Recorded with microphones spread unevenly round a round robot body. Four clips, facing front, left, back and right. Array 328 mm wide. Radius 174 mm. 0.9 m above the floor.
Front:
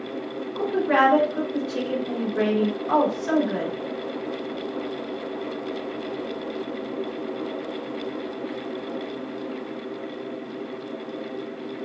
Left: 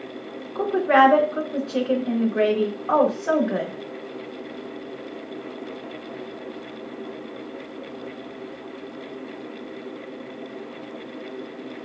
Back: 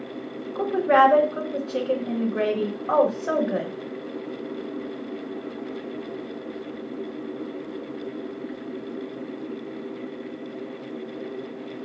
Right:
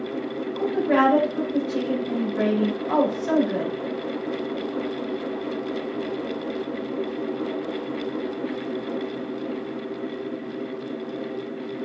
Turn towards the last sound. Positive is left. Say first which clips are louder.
# left 4 dB, back 3 dB
turn(degrees=110)